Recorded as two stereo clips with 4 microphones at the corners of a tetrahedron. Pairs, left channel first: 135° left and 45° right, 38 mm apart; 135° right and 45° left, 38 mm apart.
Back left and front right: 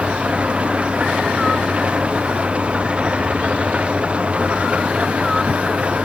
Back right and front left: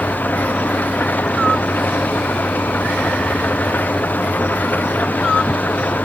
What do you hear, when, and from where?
0.0 s an engine running: 100° right